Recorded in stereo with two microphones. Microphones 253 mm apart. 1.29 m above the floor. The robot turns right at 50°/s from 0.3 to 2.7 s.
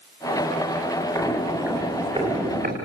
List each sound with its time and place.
1.1 s footsteps: 15° left (ahead or behind), 5.5 m; by 2.8 s 40° right (ahead or behind), 5 m